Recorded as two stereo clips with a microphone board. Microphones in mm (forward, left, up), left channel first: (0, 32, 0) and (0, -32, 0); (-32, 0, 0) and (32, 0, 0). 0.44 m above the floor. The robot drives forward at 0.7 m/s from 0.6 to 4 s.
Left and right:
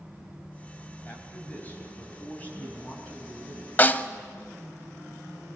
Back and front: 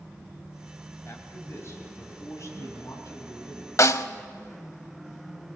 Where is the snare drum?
145° left, 0.5 m; by 4.1 s 155° left, 0.7 m.